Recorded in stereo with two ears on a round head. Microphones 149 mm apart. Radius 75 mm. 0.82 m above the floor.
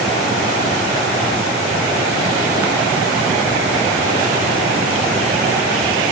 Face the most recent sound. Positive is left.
No sound to turn to.